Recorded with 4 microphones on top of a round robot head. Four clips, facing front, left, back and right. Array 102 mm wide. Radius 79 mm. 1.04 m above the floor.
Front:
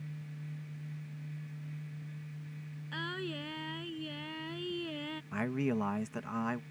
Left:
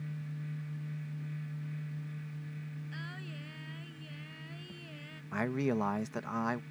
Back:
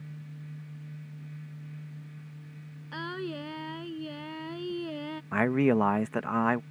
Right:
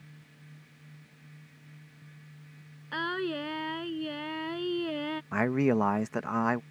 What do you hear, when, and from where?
2.9 s singing: 115° right
5.3 s a man speaking: 150° right